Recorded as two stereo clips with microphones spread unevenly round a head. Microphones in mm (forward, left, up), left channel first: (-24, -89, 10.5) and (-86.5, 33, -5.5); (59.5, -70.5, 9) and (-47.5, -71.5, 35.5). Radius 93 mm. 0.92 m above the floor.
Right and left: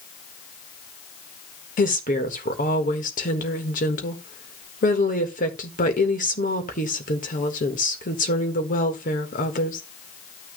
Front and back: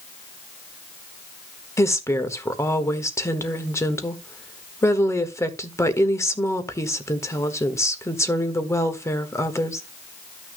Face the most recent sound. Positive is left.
turn(degrees=-45)